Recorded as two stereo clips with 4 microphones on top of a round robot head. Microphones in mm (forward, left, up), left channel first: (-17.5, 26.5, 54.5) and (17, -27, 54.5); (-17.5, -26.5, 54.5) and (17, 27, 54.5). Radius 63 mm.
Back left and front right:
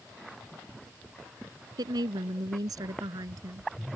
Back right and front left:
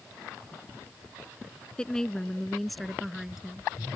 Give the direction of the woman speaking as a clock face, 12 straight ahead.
1 o'clock.